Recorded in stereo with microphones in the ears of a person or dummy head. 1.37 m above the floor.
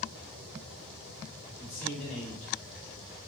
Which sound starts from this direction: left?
A man speaking, at 1.6 s.